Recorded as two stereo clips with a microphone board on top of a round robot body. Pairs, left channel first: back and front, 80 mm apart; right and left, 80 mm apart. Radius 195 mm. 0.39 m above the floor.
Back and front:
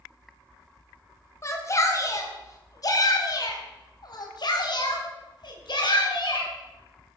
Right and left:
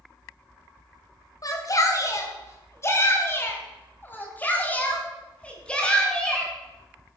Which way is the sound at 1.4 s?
130° right.